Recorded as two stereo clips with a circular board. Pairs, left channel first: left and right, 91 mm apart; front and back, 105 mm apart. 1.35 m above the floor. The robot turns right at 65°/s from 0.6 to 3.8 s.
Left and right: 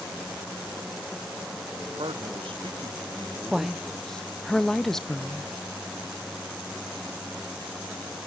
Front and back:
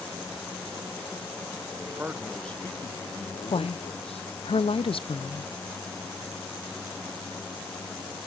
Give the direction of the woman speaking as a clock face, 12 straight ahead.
12 o'clock.